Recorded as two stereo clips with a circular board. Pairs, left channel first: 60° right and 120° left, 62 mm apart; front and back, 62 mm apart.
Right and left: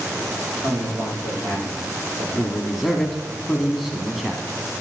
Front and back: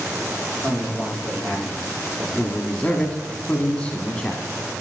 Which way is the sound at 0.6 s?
80° left.